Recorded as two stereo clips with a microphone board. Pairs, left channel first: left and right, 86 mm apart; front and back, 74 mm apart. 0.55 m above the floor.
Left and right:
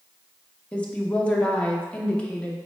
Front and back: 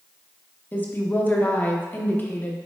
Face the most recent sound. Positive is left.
turn(degrees=30)